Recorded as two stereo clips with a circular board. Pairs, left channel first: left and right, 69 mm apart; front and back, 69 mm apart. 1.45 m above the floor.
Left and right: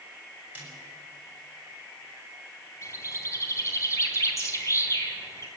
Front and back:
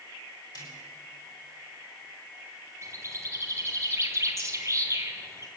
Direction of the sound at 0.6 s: 25° right.